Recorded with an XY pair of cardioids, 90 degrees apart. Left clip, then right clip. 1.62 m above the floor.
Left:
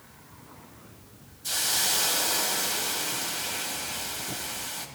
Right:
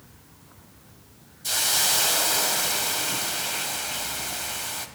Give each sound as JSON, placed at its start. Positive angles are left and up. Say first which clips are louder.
{"t": 1.4, "sound": "a hiss", "louder": "right 3 dB", "azimuth_deg": -45, "distance_m": 1.3}